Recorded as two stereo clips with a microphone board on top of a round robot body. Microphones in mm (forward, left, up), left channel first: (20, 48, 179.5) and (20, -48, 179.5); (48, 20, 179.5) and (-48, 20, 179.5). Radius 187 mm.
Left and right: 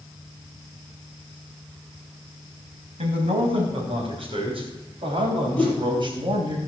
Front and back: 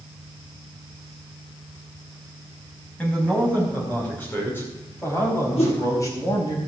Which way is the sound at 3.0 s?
80° right.